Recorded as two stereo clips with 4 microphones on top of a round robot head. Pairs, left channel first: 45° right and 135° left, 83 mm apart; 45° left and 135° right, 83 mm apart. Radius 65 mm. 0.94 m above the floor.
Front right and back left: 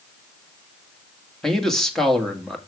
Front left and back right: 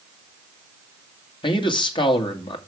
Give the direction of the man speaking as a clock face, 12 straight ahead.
11 o'clock.